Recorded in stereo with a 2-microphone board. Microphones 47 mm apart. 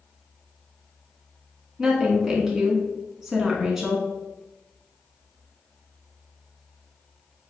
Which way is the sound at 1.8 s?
10° right (ahead or behind).